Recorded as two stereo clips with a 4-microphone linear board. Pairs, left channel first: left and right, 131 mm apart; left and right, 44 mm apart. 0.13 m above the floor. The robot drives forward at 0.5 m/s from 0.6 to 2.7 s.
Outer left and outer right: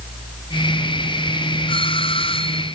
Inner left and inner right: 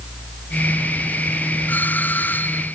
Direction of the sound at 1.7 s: 45° left (ahead or behind).